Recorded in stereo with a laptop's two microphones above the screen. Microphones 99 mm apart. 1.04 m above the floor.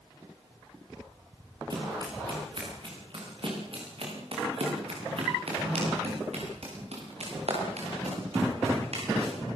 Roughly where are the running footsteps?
Right.